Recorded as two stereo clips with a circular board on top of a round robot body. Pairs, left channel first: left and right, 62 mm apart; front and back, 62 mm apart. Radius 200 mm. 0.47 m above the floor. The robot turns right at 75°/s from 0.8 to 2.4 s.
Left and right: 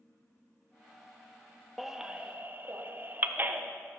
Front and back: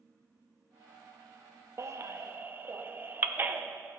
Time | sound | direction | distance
1.8 | a baby crying | straight behind | 0.8 m